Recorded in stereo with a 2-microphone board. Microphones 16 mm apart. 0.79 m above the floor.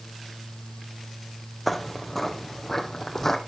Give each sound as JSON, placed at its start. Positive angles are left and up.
{"t": 1.7, "sound": "footsteps", "side_deg": 5, "distance_m": 1.1}